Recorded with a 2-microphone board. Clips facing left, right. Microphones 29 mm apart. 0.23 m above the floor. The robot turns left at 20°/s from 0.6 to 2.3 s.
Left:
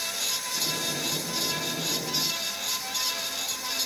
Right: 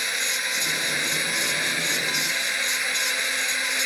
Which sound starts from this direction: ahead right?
A drone, at 0.0 s.